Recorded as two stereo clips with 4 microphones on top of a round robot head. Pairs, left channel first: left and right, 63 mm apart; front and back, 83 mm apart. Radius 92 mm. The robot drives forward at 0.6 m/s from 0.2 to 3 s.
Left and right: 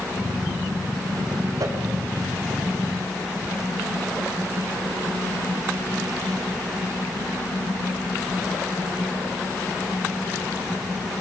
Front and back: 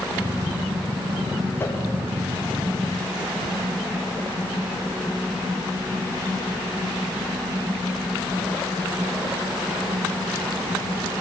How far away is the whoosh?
About 3 m.